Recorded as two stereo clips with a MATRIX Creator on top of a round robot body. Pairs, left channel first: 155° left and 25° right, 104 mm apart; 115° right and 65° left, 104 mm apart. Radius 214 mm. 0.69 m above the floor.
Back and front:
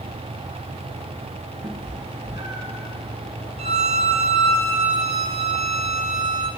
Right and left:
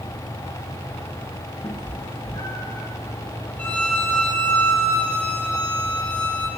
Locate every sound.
1.6 s a cat meowing: 60° right, 3.5 m; by 2.9 s 65° right, 4.5 m
3.6 s a violin: 35° right, 0.8 m